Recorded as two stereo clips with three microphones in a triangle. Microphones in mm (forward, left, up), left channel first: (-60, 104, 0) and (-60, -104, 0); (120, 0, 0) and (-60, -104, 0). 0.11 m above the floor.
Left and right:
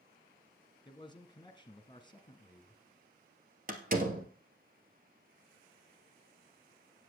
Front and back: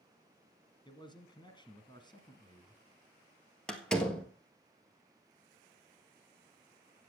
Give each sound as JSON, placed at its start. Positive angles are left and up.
{"t": 0.8, "sound": "a man speaking", "azimuth_deg": 60, "distance_m": 1.5}
{"t": 3.7, "sound": "a door slam", "azimuth_deg": -55, "distance_m": 1.5}